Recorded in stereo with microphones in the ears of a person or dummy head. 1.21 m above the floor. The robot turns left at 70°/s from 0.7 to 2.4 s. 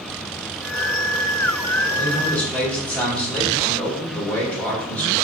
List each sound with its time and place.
2.0 s a man speaking: 40° left, 2 m; by 5.1 s 10° left, 2 m